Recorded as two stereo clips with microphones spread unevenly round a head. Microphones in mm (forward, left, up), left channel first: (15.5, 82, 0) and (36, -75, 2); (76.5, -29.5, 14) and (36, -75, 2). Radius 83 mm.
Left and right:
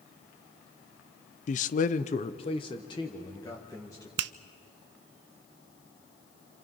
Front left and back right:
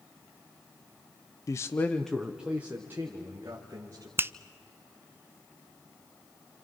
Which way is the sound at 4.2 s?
85° right.